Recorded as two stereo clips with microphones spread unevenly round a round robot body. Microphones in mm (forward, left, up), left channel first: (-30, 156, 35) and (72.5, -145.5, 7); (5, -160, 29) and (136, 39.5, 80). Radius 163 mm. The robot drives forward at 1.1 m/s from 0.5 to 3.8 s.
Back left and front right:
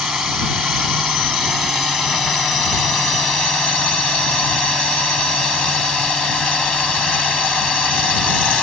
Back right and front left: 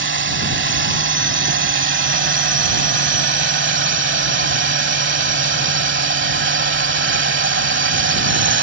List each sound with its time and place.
0.0 s a drone: 15° left; by 8.6 s 20° left